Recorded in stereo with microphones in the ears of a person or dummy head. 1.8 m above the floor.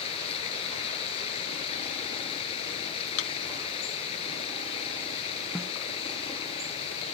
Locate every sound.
0.0 s running water: 30° left (ahead or behind)
3.2 s a thud: 75° left (ahead or behind)
5.5 s a snare drum: 5° left (ahead or behind)